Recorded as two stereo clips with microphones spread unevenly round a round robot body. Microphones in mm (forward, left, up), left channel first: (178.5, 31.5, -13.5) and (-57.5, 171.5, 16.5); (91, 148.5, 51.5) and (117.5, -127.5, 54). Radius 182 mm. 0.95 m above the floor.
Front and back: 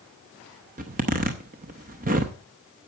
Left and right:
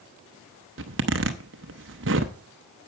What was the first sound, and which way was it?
A zipper, 140° right.